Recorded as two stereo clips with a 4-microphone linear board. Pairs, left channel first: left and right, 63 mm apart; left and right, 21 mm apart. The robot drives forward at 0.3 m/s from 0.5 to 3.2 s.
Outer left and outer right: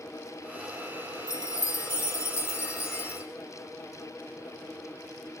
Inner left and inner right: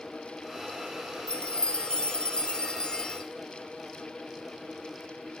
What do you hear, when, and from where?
1.3 s a chime: 60° left (ahead or behind), 1.3 m; by 3.2 s 40° left (ahead or behind), 1.7 m